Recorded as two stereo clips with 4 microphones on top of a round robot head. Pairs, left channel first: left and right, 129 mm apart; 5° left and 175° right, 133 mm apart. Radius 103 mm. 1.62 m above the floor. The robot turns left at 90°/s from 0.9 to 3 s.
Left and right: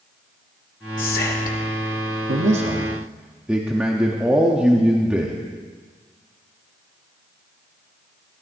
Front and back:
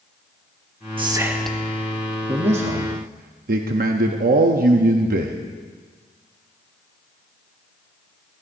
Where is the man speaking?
110° right, 0.8 m; by 5.4 s 170° right, 0.8 m.